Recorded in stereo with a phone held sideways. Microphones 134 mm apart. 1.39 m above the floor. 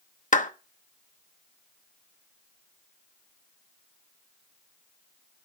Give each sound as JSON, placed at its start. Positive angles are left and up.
{"t": 0.3, "sound": "a clap", "side_deg": 70, "distance_m": 1.0}